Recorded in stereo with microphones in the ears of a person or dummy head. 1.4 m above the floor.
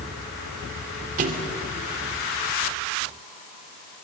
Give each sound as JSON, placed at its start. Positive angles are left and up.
{"t": 1.2, "sound": "a thud", "side_deg": -45, "distance_m": 2.0}